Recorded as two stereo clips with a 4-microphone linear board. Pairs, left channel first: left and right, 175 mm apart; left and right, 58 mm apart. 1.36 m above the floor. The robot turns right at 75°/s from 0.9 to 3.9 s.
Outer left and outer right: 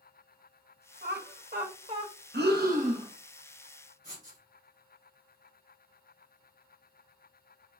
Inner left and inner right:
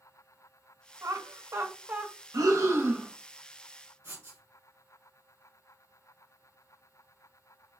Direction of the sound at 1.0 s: 70° right (ahead or behind).